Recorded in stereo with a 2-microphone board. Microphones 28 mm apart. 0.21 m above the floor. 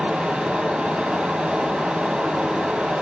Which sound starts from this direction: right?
Running water, at 0.0 s.